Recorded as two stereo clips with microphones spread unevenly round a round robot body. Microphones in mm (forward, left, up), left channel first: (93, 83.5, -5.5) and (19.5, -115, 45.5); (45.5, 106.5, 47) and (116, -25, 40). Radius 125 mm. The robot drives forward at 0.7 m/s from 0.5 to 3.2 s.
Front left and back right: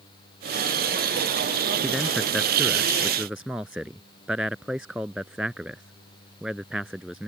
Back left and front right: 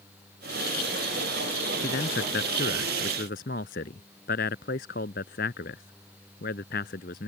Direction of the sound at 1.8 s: 160° left.